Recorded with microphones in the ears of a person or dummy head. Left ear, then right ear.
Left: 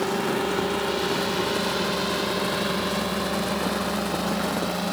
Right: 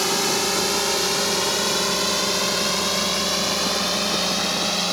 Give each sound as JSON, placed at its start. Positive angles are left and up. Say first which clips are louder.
{"t": 0.0, "sound": "a drone", "louder": "right 4 dB", "side_deg": -70}